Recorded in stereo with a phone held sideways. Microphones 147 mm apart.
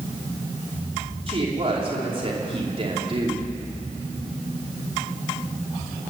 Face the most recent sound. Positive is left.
turn(degrees=-40)  # may be behind; listen again after turning